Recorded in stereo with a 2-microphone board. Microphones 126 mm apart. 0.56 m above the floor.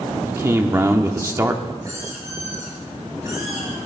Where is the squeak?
25° right (ahead or behind), 7 m.